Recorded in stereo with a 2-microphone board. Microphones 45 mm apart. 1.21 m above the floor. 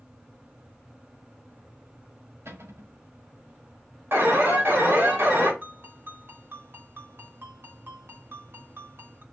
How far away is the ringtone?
About 2.5 m.